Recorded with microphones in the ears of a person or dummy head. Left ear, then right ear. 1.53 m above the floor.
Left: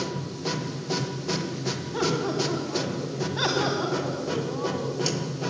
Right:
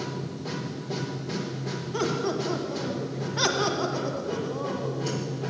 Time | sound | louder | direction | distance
0.0 | a machine running | left 3 dB | 65° left (ahead or behind) | 1.2 m
1.9 | laughter | left 1 dB | 10° left (ahead or behind) | 1.5 m